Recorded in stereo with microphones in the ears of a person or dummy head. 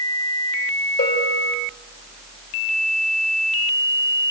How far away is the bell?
About 5.5 m.